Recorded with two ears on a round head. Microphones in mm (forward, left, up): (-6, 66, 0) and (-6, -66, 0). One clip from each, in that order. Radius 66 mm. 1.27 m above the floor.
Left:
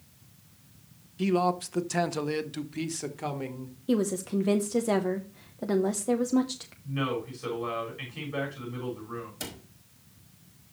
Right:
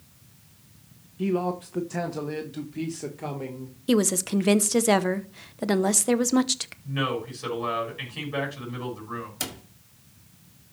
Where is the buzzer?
I don't hear a buzzer.